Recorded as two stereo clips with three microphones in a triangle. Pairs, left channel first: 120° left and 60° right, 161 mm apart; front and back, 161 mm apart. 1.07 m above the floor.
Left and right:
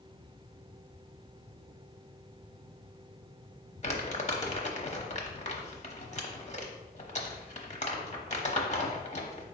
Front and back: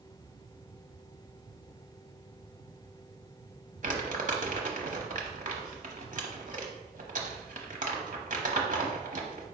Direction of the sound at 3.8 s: 155° left.